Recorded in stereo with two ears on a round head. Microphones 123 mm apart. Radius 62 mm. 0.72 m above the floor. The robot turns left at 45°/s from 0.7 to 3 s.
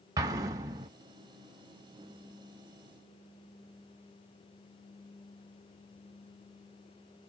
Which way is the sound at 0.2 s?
25° right (ahead or behind).